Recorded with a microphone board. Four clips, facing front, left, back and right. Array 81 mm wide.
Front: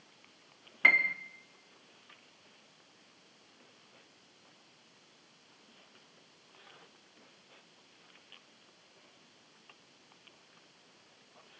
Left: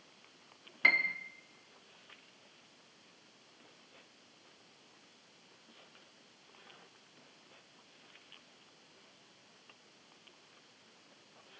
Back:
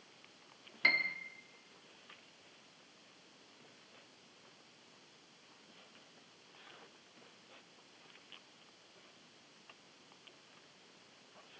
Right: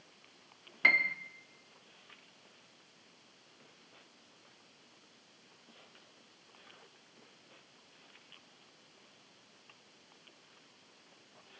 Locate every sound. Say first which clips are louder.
0.8 s a piano: right 1 dB, front 7 dB; 5° right, 0.6 m